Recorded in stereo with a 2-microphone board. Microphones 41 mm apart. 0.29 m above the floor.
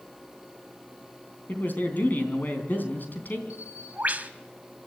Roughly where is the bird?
Right.